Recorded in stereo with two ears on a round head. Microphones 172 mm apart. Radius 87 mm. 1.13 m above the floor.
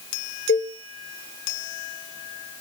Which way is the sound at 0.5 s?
45° left (ahead or behind).